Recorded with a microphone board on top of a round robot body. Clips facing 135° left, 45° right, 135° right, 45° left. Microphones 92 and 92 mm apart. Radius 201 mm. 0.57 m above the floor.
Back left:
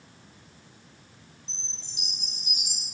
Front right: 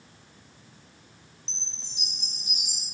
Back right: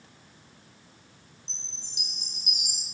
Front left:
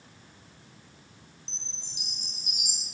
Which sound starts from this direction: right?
A chime, at 1.5 s.